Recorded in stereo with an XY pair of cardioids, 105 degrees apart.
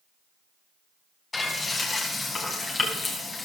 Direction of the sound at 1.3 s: 25° left.